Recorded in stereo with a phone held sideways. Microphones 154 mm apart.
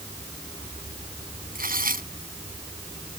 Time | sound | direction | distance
1.6 | tearing paper | 70° right (ahead or behind) | ?